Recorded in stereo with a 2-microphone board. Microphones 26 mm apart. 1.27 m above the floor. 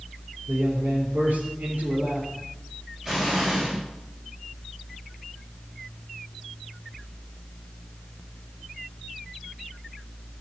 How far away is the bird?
I don't hear a bird.